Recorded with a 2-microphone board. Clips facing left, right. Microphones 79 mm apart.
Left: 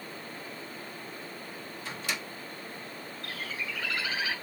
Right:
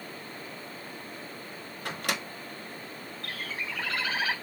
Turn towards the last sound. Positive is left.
turn(degrees=-45)  # may be behind; listen again after turning